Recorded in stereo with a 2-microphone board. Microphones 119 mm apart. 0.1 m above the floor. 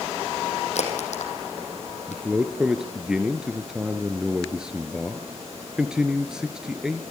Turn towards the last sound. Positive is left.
turn(degrees=-5)  # may be behind; listen again after turning